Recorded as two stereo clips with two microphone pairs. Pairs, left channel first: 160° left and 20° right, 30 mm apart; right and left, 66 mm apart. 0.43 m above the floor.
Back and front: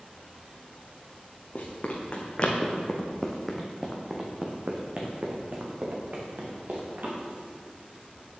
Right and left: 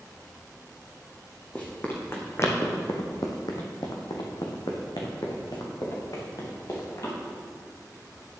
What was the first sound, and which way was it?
Running footsteps, 155° right.